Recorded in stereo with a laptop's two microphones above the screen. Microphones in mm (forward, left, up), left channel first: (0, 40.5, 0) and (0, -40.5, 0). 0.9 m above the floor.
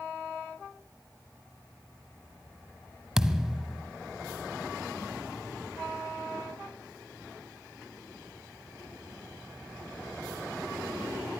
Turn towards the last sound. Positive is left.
turn(degrees=-5)  # may be behind; listen again after turning